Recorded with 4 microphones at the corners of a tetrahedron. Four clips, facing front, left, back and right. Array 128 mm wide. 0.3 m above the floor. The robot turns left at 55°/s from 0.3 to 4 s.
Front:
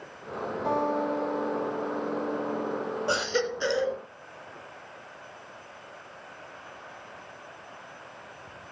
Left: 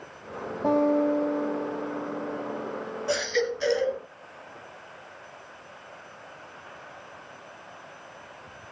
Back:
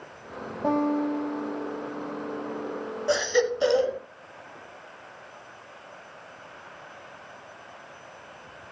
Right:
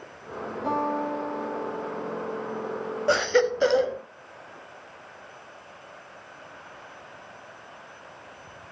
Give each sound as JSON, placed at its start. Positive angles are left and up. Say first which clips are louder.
{"t": 0.6, "sound": "a guitar", "louder": "left 5 dB, back 3 dB", "azimuth_deg": 135, "distance_m": 9.0}
{"t": 3.1, "sound": "a baby crying", "louder": "right 5 dB, back 6 dB", "azimuth_deg": -75, "distance_m": 1.0}